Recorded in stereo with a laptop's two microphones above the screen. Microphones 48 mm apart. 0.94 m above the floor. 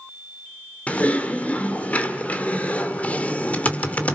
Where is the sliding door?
I don't hear a sliding door.